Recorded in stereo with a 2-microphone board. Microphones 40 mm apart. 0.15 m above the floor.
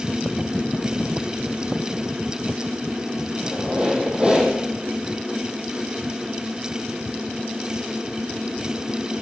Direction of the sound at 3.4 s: 30° right (ahead or behind).